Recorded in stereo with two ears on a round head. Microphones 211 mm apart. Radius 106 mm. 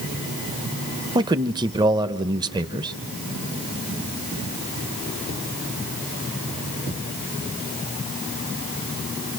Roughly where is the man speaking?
Centre.